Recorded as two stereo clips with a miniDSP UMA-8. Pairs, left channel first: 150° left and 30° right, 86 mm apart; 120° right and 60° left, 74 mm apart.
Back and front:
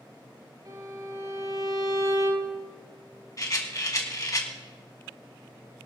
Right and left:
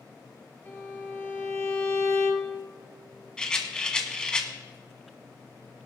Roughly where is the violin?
Ahead right.